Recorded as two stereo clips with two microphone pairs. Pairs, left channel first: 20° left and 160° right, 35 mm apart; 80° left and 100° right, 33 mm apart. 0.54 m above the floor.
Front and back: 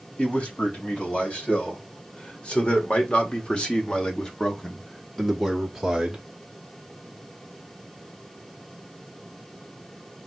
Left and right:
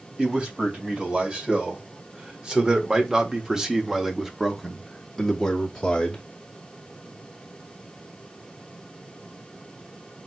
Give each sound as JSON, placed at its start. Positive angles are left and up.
{"t": 0.2, "sound": "a man speaking", "azimuth_deg": -35, "distance_m": 2.5}